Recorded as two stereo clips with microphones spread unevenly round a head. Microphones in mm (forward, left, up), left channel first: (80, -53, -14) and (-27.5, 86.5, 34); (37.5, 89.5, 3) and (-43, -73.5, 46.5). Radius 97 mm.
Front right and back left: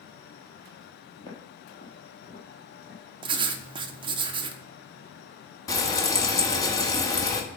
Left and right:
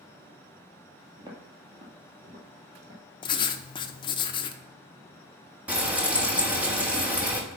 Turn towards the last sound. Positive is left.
turn(degrees=-135)